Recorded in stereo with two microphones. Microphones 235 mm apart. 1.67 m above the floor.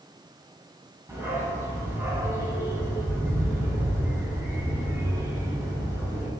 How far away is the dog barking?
About 3.5 m.